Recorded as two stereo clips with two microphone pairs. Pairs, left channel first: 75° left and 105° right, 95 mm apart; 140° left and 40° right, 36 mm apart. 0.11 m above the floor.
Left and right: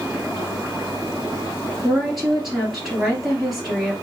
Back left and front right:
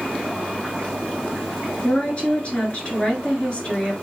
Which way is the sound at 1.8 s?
170° left.